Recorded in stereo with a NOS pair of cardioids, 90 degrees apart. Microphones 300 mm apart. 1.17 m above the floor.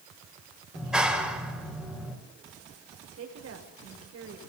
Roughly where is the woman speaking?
Ahead right.